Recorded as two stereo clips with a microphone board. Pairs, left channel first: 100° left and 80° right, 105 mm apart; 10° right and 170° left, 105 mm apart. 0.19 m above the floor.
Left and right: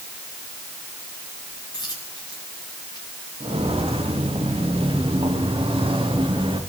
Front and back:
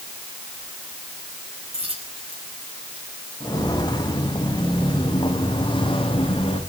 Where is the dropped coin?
150° left, 8 m.